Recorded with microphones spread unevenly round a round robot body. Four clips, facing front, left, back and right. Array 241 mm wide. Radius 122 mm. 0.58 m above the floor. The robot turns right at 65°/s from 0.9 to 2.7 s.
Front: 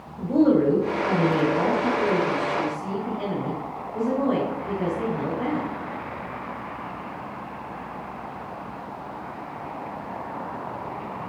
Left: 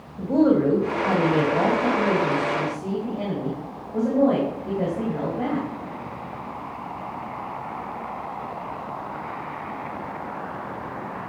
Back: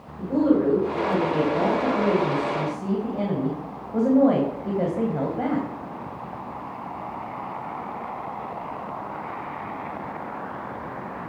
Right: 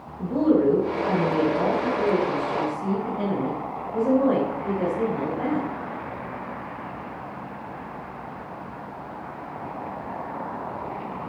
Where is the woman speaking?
60° left, 3.5 m; by 5.7 s straight behind, 3.5 m.